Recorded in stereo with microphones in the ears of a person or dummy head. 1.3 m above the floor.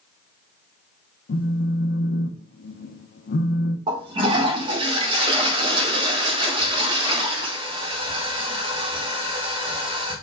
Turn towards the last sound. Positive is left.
turn(degrees=-35)  # may be behind; listen again after turning